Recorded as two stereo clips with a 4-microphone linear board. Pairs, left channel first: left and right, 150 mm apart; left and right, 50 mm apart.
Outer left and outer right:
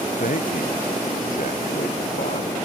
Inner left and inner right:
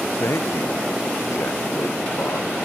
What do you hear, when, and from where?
0.2 s a man speaking: 65° left (ahead or behind)